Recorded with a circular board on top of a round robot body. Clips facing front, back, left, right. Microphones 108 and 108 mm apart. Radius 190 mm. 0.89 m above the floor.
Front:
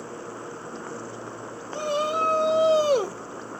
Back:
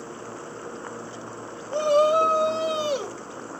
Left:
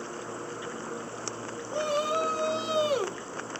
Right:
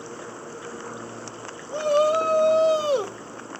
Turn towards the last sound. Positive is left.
turn(degrees=-20)